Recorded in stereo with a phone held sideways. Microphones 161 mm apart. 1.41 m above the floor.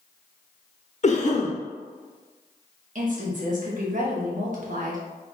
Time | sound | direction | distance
1.0 | a cough | 45° left (ahead or behind) | 0.8 m
3.0 | a woman speaking | 55° right (ahead or behind) | 1.2 m